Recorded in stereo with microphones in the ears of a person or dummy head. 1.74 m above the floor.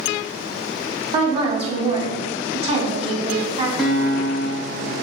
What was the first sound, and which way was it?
A woman speaking, 30° right (ahead or behind).